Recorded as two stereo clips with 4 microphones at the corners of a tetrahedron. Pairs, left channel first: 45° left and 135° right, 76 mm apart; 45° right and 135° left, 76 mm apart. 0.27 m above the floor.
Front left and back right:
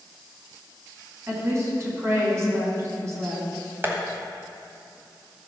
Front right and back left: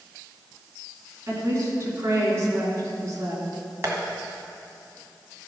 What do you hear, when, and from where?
1.3 s a woman speaking: straight behind, 3 m
3.8 s tapping: 175° left, 1.7 m